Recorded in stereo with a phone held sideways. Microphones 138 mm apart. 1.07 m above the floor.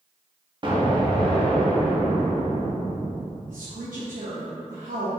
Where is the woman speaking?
80° right, 0.9 m.